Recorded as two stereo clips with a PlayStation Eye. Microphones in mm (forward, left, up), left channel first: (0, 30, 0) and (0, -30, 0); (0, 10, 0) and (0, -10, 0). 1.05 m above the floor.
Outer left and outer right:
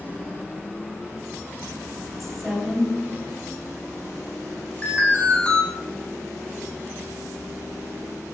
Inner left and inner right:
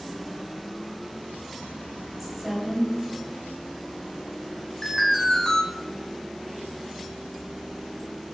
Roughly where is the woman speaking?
Centre.